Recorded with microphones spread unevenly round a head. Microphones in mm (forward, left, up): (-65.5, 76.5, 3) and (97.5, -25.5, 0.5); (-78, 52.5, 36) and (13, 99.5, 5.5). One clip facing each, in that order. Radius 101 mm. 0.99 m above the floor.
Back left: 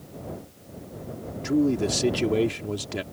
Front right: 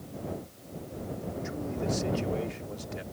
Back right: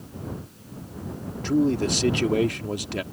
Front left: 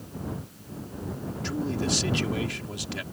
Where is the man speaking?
170° left.